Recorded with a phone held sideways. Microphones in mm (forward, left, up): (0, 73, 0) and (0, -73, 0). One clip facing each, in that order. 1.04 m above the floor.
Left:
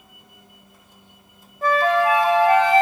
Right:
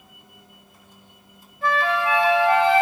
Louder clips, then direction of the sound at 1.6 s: Left 4 dB; 40° left (ahead or behind).